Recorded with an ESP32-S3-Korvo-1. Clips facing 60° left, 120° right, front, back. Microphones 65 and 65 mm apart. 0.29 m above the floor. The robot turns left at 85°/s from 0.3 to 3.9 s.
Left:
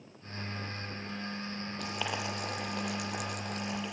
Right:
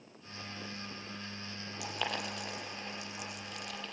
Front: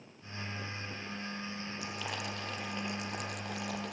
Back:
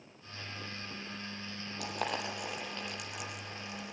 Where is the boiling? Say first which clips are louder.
Left 1 dB, back 6 dB; 160° left, 6 m; by 3.9 s 20° right, 6 m.